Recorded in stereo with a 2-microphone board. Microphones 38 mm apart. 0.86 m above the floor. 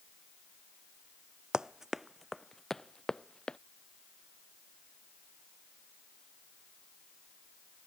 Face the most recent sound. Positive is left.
turn(degrees=25)  # may be behind; listen again after turning